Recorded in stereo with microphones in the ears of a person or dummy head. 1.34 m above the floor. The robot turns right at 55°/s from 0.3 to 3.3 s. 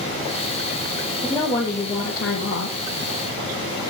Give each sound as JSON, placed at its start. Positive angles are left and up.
{"t": 1.2, "sound": "a woman speaking", "azimuth_deg": 5, "distance_m": 2.0}